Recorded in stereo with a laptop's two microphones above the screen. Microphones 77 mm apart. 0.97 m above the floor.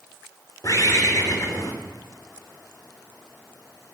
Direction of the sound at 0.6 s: 45° left (ahead or behind).